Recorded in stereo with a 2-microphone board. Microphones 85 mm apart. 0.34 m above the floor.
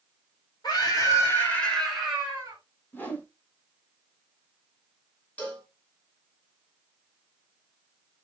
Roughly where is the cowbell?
Centre.